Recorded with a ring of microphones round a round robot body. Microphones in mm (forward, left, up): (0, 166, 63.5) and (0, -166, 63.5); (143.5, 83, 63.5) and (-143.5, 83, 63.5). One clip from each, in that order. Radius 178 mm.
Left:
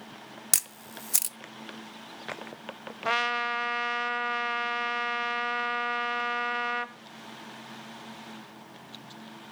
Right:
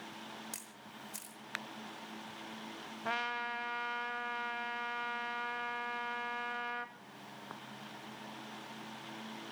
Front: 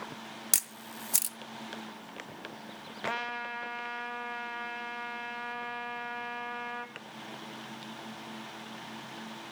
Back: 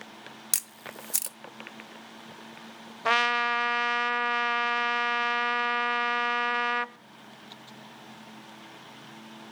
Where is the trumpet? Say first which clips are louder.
Left 10 dB, back 11 dB; 160° left, 0.5 m.